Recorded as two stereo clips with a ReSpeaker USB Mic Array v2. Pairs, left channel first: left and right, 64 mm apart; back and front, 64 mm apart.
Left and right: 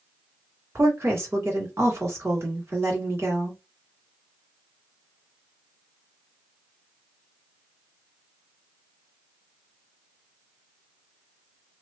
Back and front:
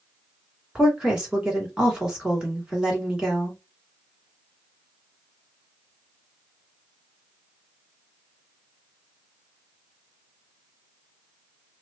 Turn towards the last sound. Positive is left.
turn(degrees=-70)